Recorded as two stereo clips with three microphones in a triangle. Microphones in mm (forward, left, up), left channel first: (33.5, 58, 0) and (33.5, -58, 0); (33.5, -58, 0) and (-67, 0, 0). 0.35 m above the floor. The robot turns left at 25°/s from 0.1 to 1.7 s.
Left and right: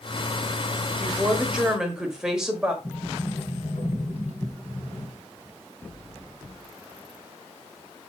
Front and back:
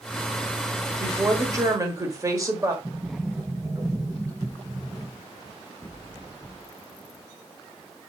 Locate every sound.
1.0 s a woman speaking: 155° right, 1.1 m; by 2.7 s 170° right, 1.1 m
2.8 s a sliding door: 85° left, 3.5 m